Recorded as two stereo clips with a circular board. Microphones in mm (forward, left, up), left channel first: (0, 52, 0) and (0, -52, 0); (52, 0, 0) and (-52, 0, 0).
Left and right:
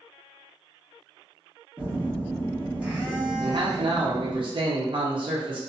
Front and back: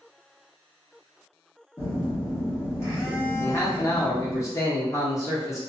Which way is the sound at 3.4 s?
55° right.